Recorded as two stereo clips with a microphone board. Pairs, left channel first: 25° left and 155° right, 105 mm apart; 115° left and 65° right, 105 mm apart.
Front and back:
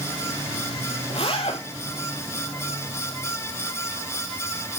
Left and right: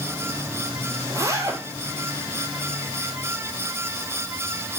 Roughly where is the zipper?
Ahead.